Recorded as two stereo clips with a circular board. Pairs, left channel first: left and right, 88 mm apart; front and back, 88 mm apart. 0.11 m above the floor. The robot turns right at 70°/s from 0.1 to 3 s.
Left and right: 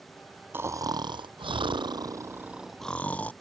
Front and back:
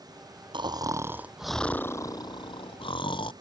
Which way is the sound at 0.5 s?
155° right.